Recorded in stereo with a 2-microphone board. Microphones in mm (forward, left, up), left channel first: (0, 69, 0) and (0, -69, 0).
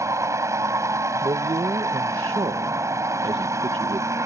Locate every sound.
0.0 s a vehicle: 20° right (ahead or behind)
1.2 s a man speaking: 40° right (ahead or behind)